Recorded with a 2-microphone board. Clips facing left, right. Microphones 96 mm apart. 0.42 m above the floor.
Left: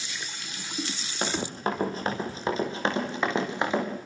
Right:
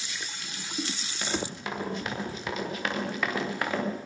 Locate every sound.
1.2 s running footsteps: 45° left (ahead or behind), 8.5 m; by 3.9 s 20° left (ahead or behind), 7.5 m